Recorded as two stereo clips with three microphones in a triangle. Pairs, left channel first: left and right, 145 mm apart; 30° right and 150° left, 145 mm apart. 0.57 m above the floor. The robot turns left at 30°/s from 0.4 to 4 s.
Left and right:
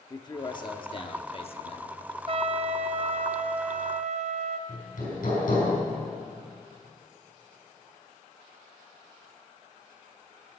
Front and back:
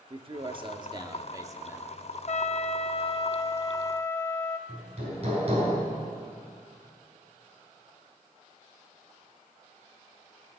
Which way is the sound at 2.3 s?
50° right.